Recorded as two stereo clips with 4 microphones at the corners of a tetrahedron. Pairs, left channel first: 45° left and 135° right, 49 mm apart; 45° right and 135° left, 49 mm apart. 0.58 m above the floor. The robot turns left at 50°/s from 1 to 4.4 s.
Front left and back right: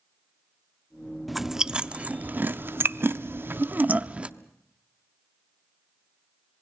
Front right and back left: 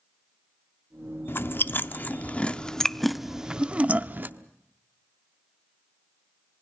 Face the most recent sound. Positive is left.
turn(degrees=160)